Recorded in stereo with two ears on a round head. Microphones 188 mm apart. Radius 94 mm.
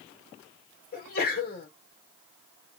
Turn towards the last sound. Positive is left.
turn(degrees=45)  # may be behind; listen again after turning